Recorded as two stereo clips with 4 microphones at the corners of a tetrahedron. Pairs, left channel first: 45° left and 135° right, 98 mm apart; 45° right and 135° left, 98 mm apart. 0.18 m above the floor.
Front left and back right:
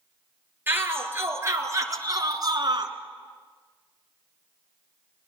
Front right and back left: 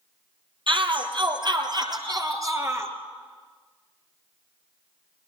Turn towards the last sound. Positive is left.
turn(degrees=-160)